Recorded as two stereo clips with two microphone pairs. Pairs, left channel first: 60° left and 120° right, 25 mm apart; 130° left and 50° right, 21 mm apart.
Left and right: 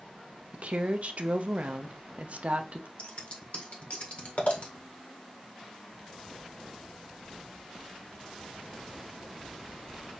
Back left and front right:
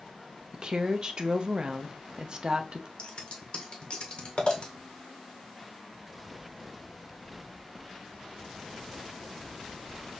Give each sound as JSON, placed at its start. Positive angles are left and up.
{"t": 0.5, "sound": "a woman speaking", "azimuth_deg": -100, "distance_m": 0.7}
{"t": 3.0, "sound": "scissors", "azimuth_deg": 90, "distance_m": 1.4}